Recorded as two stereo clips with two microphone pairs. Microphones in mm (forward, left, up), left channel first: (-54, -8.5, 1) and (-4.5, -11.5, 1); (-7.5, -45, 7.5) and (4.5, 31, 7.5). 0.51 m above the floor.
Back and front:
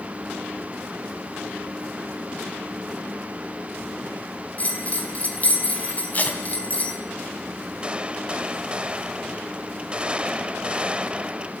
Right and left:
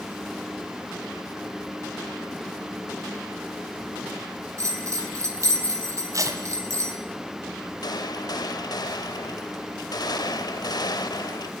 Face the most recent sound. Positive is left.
turn(degrees=-70)